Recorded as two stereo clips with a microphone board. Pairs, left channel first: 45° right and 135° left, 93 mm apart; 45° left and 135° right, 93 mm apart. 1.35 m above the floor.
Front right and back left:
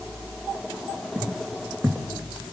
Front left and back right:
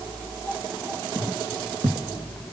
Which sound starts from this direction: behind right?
Footsteps, at 1.1 s.